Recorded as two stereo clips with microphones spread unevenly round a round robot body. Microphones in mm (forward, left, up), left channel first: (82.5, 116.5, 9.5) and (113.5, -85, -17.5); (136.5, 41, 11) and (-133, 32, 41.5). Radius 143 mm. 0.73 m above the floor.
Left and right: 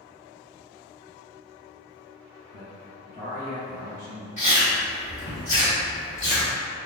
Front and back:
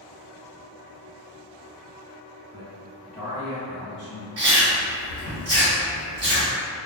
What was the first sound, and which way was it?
A man speaking, 5° right.